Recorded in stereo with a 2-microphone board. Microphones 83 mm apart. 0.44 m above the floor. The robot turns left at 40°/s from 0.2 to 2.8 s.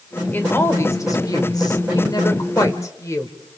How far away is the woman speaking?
About 1.6 m.